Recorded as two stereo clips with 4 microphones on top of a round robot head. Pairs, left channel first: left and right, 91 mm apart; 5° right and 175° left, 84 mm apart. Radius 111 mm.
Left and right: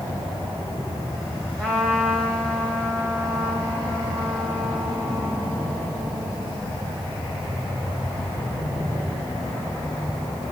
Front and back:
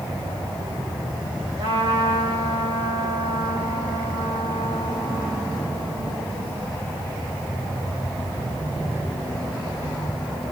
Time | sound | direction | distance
1.6 | a trumpet | 170° left | 5.5 m